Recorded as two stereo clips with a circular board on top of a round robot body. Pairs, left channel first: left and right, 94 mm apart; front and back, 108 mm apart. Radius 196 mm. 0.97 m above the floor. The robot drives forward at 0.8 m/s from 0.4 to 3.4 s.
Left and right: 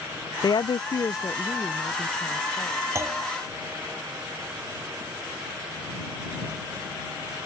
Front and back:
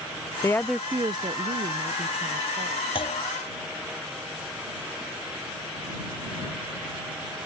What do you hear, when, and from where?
0.4 s a woman speaking: 55° left; by 2.9 s 170° left
3.0 s a clunk: 30° right; by 3.2 s 35° right